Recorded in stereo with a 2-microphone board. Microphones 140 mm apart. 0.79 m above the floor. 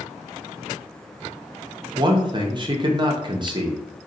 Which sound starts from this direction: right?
A man speaking, at 1.9 s.